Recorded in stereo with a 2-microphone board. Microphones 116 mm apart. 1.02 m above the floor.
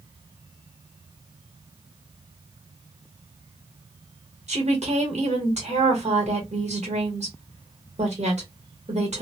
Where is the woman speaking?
75° right (ahead or behind), 1.5 m.